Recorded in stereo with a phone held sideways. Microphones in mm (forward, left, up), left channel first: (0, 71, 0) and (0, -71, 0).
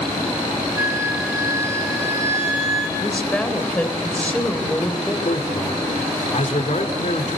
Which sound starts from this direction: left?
A man speaking, at 5.2 s.